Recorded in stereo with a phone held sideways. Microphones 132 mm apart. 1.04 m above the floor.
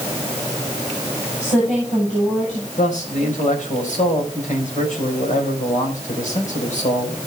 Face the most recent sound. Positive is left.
turn(degrees=70)  # may be behind; listen again after turning